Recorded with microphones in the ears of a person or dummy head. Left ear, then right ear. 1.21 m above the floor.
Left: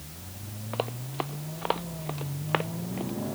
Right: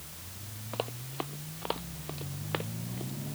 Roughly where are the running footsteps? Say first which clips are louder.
Left 4 dB; centre.